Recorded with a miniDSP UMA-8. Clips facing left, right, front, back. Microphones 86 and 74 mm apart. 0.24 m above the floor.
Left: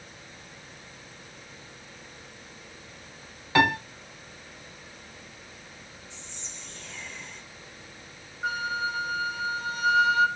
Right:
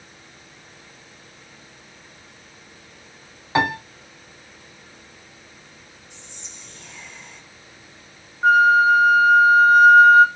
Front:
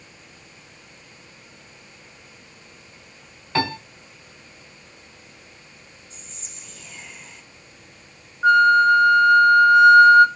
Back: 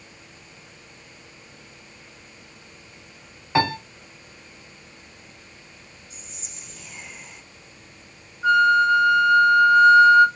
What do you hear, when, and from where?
3.5 s a piano: 130° right, 1.3 m
6.1 s whispering: 135° right, 1.6 m
8.4 s a flute: 45° right, 1.0 m